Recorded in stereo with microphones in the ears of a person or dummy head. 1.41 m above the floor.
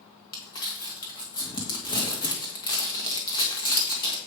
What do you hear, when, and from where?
0.3 s crumpling: 25° left (ahead or behind), 1.9 m